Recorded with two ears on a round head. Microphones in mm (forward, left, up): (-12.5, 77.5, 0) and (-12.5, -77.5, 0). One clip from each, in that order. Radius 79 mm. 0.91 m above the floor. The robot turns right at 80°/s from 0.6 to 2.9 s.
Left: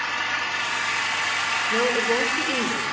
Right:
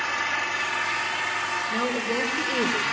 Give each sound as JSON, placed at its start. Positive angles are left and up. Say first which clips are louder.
{"t": 0.0, "sound": "an engine running", "louder": "left 1 dB", "azimuth_deg": 20, "distance_m": 1.5}
{"t": 1.7, "sound": "a woman speaking", "louder": "left 5 dB", "azimuth_deg": 115, "distance_m": 3.5}